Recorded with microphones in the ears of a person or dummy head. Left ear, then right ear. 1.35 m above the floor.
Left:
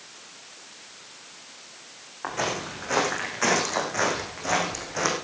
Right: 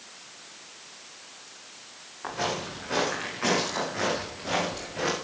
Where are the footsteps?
25° left (ahead or behind), 5.5 m; by 5.1 s 45° left (ahead or behind), 5 m.